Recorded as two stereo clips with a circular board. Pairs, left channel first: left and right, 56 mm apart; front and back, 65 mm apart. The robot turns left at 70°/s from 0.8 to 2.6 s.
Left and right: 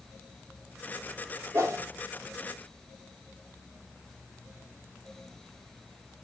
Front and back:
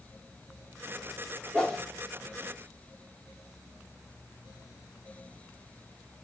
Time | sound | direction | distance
1.5 | a whoosh | 65° right | 2.5 m